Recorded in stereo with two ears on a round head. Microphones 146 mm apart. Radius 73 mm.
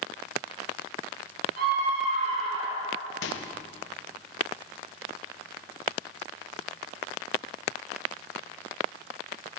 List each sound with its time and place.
1.6 s a scream: 55° right (ahead or behind), 2.5 m; by 3.0 s 20° right (ahead or behind), 1.9 m
3.2 s a microwave: 85° left, 0.7 m